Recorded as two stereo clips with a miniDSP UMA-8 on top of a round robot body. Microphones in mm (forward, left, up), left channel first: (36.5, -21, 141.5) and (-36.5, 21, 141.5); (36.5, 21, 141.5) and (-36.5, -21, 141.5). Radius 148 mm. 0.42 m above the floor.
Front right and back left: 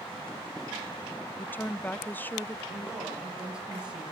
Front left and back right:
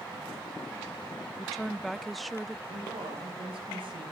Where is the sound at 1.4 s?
60° right, 0.8 m.